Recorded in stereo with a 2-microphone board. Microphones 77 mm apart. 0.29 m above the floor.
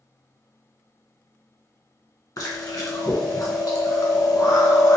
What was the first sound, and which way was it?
Chewing, 50° left (ahead or behind).